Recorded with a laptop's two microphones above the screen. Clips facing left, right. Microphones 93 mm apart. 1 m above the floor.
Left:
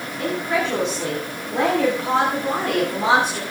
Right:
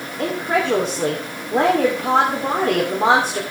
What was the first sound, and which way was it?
A woman speaking, 40° right (ahead or behind).